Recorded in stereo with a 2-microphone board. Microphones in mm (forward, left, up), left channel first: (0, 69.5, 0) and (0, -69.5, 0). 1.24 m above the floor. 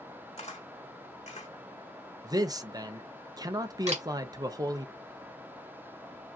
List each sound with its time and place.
0.4 s a camera shutter: 50° left (ahead or behind), 2 m
2.2 s a man speaking: 25° right (ahead or behind), 0.6 m
3.9 s a camera shutter: 55° right (ahead or behind), 1.8 m